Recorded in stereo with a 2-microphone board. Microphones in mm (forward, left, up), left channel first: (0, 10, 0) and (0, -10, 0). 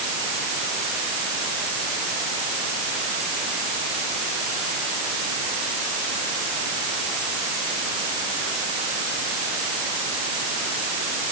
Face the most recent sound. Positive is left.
No sound to turn to.